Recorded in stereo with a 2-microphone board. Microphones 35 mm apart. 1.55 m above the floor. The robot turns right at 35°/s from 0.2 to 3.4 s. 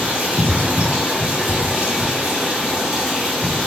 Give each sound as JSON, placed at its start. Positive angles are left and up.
{"t": 0.0, "sound": "running water", "azimuth_deg": -115, "distance_m": 1.6}